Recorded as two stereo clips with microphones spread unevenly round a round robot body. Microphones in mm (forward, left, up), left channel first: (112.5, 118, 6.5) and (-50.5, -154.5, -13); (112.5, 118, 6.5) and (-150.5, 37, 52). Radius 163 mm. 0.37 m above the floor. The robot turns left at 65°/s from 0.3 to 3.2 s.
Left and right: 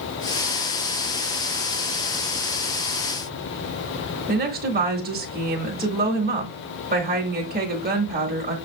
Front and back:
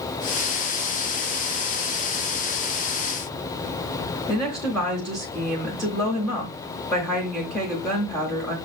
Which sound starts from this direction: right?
A woman speaking, at 4.3 s.